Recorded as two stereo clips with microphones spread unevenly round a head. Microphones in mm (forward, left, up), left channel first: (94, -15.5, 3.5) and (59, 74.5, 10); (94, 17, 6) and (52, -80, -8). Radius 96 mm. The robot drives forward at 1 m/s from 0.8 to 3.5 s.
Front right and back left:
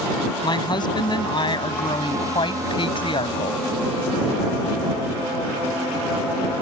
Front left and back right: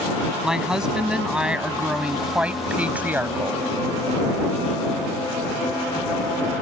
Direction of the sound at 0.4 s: 30° right.